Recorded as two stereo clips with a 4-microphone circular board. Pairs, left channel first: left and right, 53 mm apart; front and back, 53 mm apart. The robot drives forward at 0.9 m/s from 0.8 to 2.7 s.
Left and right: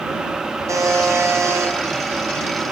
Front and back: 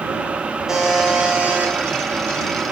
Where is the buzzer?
100° right, 2 m; by 1.7 s 120° right, 2.5 m.